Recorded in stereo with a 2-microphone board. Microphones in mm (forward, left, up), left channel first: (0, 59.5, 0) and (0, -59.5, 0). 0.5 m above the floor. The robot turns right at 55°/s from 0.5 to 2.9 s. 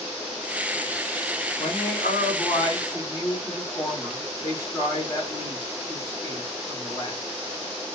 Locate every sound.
1.6 s a man speaking: 75° left, 2 m; by 7.2 s 145° left, 2 m